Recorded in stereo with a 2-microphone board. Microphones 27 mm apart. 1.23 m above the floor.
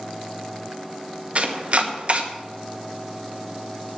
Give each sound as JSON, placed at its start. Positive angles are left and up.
{"t": 1.4, "sound": "chopping", "side_deg": -50, "distance_m": 1.0}